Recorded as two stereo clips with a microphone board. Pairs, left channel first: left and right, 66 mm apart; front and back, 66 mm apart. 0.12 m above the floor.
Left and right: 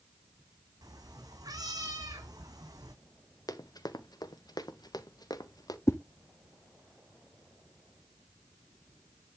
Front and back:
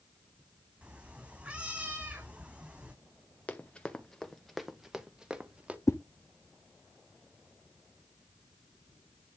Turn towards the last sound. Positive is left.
turn(degrees=45)